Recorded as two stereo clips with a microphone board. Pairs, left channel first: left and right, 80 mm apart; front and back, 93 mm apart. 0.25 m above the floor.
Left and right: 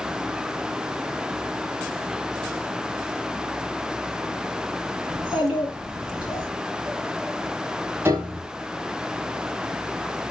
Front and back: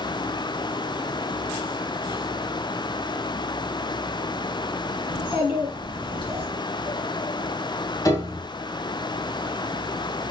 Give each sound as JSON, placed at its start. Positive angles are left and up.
{"t": 5.1, "sound": "a child speaking", "azimuth_deg": -15, "distance_m": 2.5}
{"t": 8.1, "sound": "a piano", "azimuth_deg": -35, "distance_m": 1.1}